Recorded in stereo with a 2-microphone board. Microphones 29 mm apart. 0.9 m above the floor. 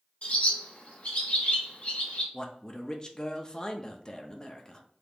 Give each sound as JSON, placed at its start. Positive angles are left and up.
{"t": 0.2, "sound": "a bird", "side_deg": 55, "distance_m": 1.9}
{"t": 2.3, "sound": "a man speaking", "side_deg": 25, "distance_m": 0.5}